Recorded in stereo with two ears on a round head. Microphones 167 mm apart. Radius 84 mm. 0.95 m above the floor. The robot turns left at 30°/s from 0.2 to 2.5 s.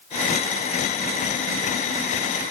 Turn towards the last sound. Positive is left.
No sound to turn to.